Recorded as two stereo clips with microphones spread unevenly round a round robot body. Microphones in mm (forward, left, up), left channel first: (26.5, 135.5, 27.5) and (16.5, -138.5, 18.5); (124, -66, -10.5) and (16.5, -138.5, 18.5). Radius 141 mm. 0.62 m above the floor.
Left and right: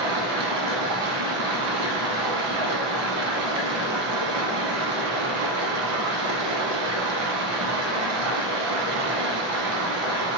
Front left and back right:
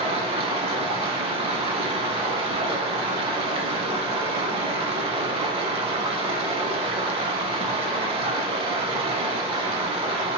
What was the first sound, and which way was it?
Running water, 125° right.